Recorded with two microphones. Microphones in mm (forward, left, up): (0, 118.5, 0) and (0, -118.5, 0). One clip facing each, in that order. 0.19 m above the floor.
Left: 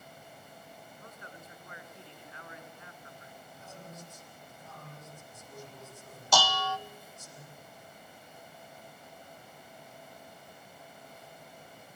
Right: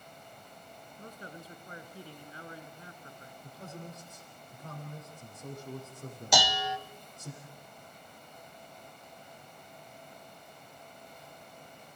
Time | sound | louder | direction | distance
1.0 | a man speaking | right 8 dB | 35° right (ahead or behind) | 1.9 m
3.4 | a man speaking | right 6 dB | 65° right (ahead or behind) | 8.5 m
6.3 | dishes clattering | even | 15° right (ahead or behind) | 0.8 m